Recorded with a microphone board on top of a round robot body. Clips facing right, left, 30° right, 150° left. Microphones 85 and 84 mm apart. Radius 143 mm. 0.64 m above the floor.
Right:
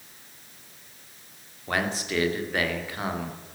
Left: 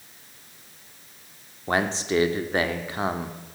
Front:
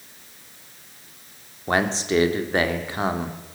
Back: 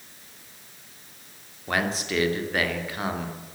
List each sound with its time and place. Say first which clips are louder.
1.7 s a man speaking: left 4 dB, front 5 dB; 30° left, 2.5 m